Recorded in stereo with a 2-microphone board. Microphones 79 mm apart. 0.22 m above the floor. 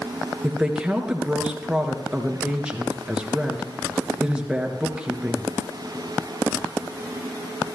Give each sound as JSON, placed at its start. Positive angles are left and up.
{"t": 0.4, "sound": "a woman speaking", "side_deg": -10, "distance_m": 3.0}